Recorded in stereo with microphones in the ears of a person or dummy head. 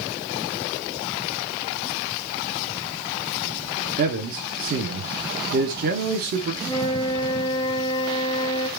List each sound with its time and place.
4.0 s a man speaking: 45° right (ahead or behind), 0.8 m
6.6 s a flute: 15° left (ahead or behind), 1.5 m